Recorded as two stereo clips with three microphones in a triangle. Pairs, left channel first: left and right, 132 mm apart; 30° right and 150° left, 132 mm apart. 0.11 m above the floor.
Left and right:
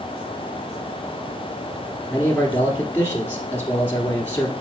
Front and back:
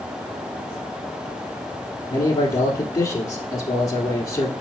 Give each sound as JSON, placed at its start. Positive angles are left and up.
{"t": 2.1, "sound": "a man speaking", "azimuth_deg": 25, "distance_m": 1.6}